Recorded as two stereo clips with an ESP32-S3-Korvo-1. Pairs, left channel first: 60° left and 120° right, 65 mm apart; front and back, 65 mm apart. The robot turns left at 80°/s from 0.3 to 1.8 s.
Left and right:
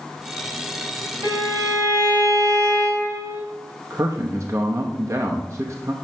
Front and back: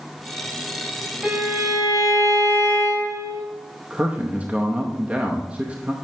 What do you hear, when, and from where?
1.2 s a violin: 115° right, 2 m; by 3.4 s 160° right, 2 m
3.9 s a man speaking: 120° right, 0.8 m